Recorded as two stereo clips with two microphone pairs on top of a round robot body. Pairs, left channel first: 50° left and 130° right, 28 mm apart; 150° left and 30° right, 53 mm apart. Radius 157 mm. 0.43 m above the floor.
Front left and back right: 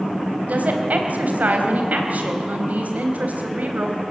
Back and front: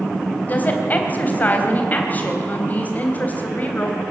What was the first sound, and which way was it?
A woman speaking, 150° right.